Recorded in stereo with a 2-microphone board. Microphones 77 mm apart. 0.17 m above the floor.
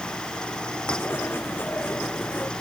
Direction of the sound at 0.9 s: 25° left (ahead or behind).